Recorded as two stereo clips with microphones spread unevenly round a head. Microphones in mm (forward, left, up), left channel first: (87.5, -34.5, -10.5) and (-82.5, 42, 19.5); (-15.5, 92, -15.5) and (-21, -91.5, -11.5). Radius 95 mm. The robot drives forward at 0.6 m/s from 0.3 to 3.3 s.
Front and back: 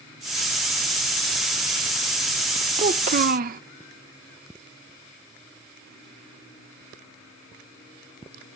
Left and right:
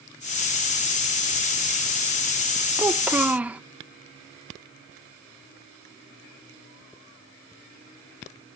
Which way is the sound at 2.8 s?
165° right.